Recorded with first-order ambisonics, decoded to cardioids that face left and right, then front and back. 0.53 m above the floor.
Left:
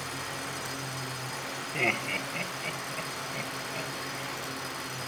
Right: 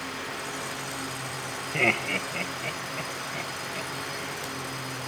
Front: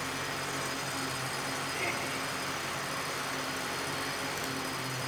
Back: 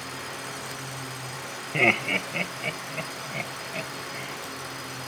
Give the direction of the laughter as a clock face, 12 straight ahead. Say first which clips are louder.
Right 4 dB, back 16 dB; 5 o'clock.